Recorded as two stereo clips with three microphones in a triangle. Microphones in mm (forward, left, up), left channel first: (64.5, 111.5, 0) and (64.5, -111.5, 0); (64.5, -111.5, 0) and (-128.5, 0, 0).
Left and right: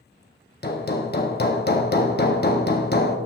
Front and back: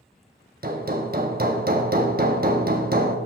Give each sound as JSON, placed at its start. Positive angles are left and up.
{"t": 0.6, "sound": "hammering", "azimuth_deg": 115, "distance_m": 1.0}